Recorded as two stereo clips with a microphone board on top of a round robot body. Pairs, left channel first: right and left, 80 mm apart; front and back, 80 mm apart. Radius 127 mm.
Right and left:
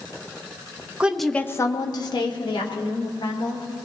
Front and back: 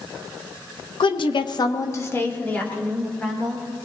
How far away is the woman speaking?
About 1.0 m.